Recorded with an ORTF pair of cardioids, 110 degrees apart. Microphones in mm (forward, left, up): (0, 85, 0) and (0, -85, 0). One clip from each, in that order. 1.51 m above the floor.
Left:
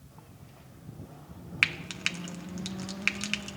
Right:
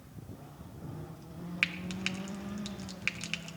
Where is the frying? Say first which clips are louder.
Left 5 dB; 25° left, 0.8 m.